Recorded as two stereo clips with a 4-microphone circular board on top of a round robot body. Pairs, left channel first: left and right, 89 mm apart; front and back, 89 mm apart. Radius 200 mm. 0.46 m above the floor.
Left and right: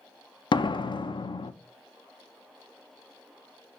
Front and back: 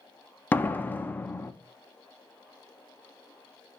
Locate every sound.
0.5 s a door slam: 70° left, 0.6 m